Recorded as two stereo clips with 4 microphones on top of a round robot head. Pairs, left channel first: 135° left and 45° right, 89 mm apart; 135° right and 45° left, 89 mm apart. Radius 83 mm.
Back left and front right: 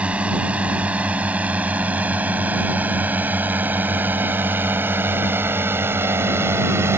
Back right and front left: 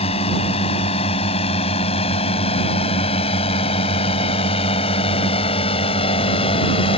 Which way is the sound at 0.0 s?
125° right.